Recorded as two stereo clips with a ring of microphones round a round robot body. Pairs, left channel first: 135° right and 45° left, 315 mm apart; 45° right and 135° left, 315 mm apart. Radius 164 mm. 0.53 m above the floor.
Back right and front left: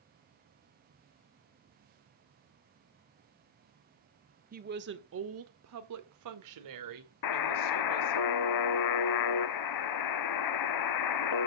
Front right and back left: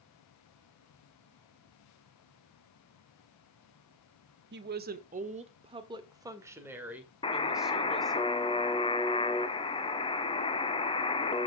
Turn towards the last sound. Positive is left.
turn(degrees=-120)